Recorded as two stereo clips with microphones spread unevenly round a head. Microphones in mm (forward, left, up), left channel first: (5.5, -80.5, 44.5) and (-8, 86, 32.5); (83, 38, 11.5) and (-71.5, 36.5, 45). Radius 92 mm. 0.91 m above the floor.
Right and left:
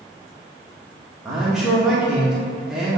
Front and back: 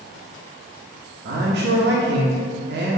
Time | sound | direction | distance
1.2 | a man speaking | straight behind | 1.1 m